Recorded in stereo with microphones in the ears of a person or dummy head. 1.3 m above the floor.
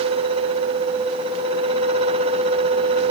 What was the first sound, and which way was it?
Only background noise.